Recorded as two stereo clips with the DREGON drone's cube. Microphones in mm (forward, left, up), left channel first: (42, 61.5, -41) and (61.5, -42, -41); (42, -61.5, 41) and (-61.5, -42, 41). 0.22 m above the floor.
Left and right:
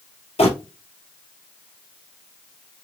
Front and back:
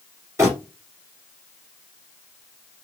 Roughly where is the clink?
I don't hear a clink.